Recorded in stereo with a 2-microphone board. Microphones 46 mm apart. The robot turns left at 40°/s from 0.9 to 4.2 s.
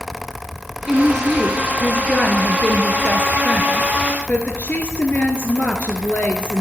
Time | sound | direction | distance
0.9 | a woman speaking | 170° right | 1.5 m